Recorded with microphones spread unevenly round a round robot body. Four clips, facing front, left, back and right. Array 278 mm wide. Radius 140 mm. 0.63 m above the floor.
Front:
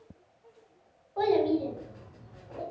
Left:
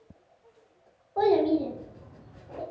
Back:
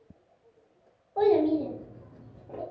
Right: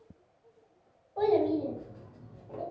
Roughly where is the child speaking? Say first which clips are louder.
Left 4 dB, back 3 dB; left.